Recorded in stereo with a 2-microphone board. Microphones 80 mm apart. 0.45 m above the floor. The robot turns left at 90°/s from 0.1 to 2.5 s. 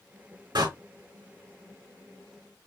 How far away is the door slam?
About 3 m.